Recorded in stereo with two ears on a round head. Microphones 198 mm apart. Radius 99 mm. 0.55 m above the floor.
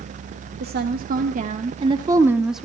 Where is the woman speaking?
50° right (ahead or behind), 1.5 m; by 2.6 s centre (ahead or behind), 1.0 m.